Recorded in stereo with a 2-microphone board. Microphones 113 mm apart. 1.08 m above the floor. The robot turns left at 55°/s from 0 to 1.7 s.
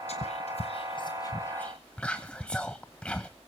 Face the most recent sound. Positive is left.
turn(degrees=10)  # may be behind; listen again after turning